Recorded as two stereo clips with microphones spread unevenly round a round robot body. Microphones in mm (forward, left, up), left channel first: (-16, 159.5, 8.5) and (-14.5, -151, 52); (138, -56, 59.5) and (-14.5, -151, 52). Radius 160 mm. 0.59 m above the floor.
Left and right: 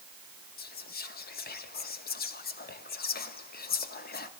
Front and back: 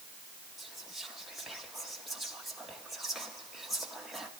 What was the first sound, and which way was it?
Whispering, 125° left.